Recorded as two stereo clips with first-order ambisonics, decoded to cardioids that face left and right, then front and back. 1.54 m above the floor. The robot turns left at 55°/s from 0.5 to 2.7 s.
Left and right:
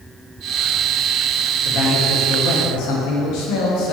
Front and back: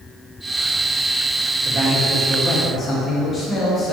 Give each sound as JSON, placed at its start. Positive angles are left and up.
{"t": 1.6, "sound": "a man speaking", "azimuth_deg": 130, "distance_m": 1.6}